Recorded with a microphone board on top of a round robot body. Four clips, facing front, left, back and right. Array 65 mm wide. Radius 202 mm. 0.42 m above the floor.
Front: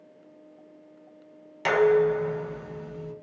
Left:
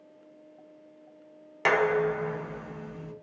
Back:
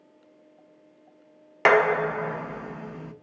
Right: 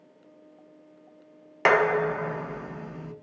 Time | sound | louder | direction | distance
1.6 | dishes clattering | right 3 dB, even | 155° right | 0.6 m